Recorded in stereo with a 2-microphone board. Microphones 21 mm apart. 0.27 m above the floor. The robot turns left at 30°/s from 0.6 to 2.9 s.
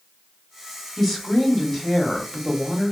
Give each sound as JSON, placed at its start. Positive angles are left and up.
{"t": 1.0, "sound": "a woman speaking", "side_deg": 10, "distance_m": 0.9}